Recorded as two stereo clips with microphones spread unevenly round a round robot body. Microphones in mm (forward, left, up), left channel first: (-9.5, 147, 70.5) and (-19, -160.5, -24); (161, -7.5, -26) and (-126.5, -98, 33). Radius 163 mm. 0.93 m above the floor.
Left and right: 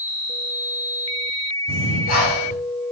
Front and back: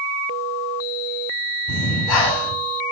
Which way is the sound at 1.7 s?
25° left.